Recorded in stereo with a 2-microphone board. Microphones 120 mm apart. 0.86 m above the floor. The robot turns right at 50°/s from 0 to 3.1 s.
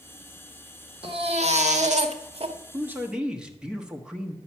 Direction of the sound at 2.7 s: 25° right (ahead or behind).